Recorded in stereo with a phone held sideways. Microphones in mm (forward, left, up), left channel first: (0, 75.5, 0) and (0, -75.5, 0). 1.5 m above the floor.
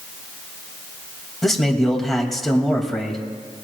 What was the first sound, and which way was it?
A man speaking, centre (ahead or behind).